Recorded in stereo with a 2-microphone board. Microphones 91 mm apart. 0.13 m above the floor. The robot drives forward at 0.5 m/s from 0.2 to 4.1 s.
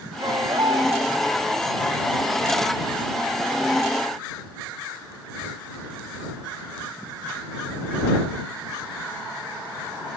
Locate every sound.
0.2 s a baby crying: 55° right (ahead or behind)